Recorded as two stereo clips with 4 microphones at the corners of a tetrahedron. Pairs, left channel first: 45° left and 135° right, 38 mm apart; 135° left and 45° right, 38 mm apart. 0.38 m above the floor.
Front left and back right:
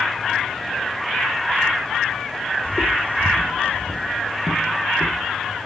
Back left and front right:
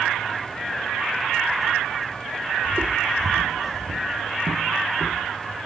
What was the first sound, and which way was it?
Footsteps, 5° left.